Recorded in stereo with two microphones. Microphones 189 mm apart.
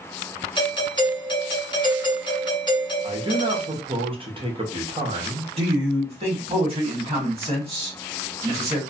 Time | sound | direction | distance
0.6 | a doorbell | 25° left (ahead or behind) | 1.0 m
3.0 | a man speaking | 30° right (ahead or behind) | 0.8 m
5.6 | a man speaking | 30° right (ahead or behind) | 1.4 m